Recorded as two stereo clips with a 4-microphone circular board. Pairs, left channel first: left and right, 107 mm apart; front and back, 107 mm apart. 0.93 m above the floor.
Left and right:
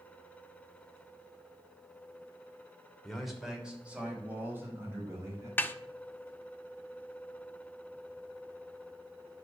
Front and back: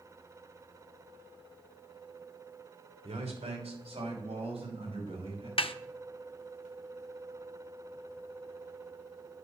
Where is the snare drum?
20° left, 0.5 m.